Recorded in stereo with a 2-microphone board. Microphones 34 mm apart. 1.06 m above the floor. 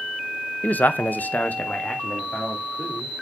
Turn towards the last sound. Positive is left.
turn(degrees=35)  # may be behind; listen again after turning